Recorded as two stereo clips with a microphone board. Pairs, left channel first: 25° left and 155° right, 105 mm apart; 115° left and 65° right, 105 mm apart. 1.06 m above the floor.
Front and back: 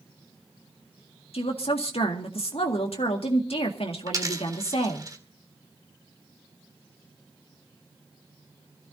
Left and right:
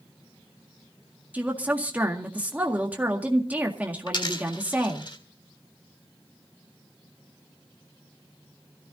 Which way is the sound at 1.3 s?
5° left.